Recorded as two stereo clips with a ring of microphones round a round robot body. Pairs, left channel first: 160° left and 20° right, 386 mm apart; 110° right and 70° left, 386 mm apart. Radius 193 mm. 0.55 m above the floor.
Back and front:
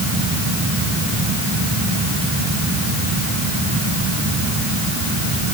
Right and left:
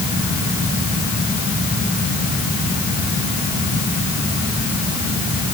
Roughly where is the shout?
No shout in this recording.